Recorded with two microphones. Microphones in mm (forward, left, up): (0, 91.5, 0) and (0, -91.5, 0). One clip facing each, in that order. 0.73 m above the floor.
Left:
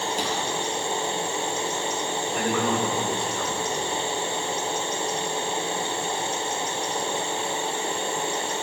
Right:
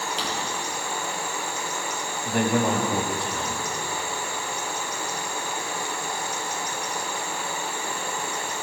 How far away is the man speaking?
About 5.5 m.